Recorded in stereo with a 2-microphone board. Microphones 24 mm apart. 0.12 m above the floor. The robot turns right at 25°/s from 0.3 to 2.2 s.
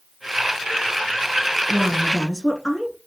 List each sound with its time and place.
1.7 s a woman speaking: 5° left (ahead or behind), 1.2 m; by 3.0 s 10° left (ahead or behind), 1.2 m